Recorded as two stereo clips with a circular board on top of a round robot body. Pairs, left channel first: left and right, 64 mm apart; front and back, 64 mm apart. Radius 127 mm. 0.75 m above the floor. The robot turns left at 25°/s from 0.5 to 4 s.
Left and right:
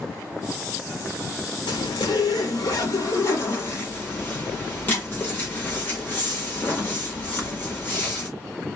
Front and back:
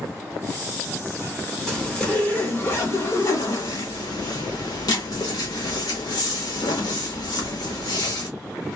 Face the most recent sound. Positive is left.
turn(degrees=25)